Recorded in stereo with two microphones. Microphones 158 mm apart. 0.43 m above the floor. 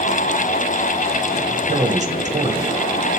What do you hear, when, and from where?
1.7 s a man speaking: 50° right (ahead or behind), 2.5 m